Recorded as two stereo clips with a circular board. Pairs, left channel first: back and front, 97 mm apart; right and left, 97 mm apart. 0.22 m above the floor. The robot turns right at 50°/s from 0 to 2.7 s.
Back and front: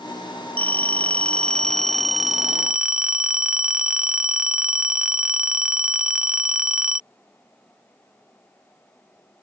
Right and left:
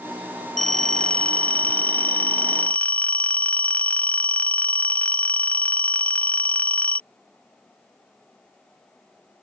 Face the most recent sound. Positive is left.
turn(degrees=-60)